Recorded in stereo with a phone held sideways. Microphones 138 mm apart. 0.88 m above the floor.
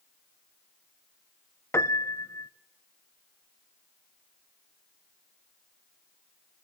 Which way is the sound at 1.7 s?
20° left (ahead or behind).